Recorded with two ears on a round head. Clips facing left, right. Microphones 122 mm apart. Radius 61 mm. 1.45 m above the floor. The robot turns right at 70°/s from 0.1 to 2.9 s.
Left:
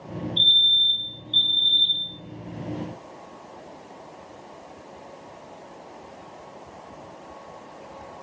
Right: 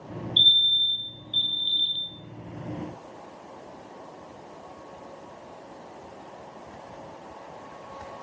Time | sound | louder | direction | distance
0.4 | a fire alarm | left 2 dB | 45° right | 2 m